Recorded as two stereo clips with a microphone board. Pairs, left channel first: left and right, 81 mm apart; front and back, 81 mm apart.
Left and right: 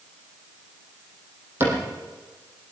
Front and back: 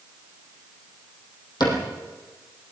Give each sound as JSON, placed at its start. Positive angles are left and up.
{"t": 1.6, "sound": "a cupboard door", "azimuth_deg": -30, "distance_m": 6.0}